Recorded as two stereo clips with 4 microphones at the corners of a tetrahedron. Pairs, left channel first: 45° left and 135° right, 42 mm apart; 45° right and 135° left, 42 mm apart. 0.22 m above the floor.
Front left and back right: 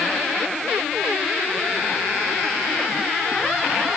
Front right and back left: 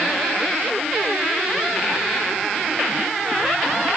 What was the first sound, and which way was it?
Only background noise.